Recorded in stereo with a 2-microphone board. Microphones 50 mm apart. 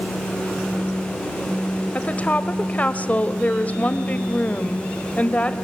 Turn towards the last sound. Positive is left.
turn(degrees=30)  # may be behind; listen again after turning